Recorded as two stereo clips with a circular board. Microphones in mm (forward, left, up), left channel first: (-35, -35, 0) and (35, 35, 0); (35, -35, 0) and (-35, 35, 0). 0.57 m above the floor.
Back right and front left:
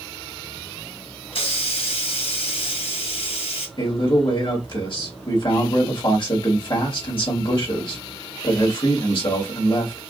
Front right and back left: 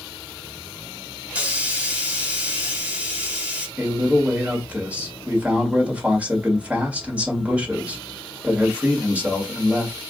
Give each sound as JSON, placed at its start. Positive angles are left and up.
{"t": 1.3, "sound": "a hiss", "azimuth_deg": -150, "distance_m": 1.0}
{"t": 3.8, "sound": "a man speaking", "azimuth_deg": -150, "distance_m": 1.7}